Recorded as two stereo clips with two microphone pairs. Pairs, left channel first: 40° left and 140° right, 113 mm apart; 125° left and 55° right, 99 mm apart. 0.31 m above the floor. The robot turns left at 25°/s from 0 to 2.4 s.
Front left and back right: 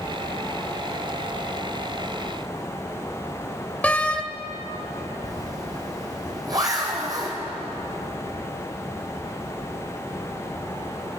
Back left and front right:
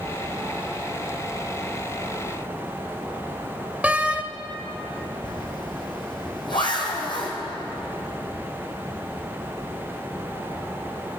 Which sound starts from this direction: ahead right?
A door slam, at 3.8 s.